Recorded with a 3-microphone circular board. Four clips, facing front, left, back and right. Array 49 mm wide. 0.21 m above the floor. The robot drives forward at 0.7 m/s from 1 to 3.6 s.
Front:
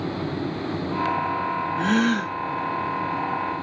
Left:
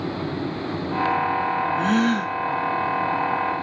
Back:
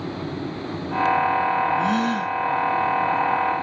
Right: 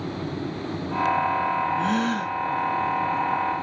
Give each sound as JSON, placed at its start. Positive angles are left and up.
{"t": 1.8, "sound": "a gasp", "azimuth_deg": 35, "distance_m": 2.0}